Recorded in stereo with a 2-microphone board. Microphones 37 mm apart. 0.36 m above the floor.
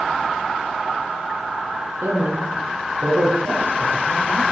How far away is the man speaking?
About 5 m.